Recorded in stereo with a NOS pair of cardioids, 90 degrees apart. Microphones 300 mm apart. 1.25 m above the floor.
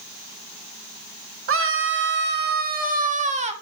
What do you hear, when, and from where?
1.5 s a scream: 45° right, 2 m; by 3.5 s 20° right, 2.5 m